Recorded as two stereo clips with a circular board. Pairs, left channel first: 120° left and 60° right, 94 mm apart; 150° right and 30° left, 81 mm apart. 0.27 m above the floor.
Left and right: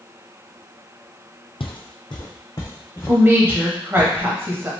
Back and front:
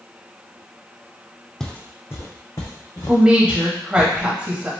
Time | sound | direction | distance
1.6 | footsteps | 130° left | 0.7 m
3.1 | a woman speaking | 30° right | 1.1 m